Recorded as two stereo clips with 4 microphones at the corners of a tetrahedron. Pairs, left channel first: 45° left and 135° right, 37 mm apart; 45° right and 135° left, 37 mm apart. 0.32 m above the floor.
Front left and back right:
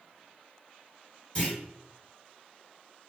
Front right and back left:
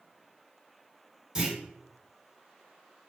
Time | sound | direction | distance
1.4 | a clunk | 75° left | 1.9 m